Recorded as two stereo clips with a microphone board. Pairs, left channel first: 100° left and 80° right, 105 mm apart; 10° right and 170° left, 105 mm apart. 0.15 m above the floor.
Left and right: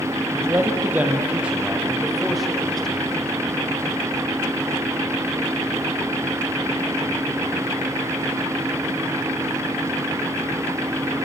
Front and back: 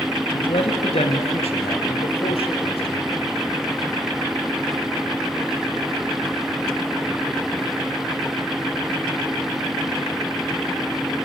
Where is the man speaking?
20° right, 2.5 m; by 3.2 s 15° left, 5 m.